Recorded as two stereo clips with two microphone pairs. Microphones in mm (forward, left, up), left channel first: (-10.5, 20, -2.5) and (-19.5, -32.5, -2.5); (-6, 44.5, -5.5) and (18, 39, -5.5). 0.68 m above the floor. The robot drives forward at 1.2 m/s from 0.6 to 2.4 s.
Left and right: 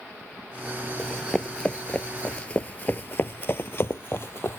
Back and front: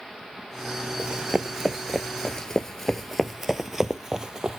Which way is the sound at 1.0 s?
5° left.